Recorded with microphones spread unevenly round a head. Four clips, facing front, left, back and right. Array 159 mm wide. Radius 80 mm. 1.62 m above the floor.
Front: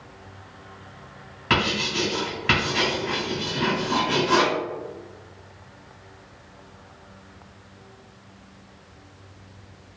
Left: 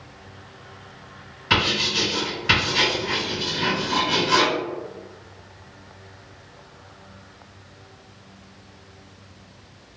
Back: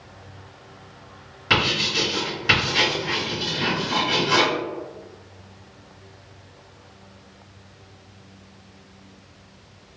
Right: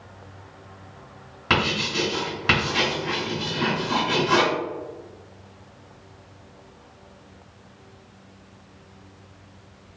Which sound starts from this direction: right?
Writing, at 1.5 s.